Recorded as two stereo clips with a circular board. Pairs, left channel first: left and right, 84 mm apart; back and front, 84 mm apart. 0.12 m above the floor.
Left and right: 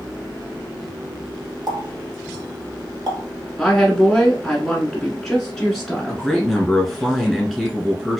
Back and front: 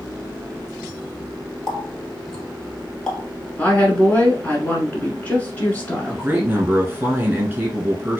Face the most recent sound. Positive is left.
turn(degrees=5)